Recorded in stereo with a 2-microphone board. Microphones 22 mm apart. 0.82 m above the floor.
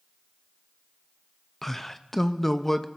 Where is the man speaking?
15° left (ahead or behind), 0.5 m.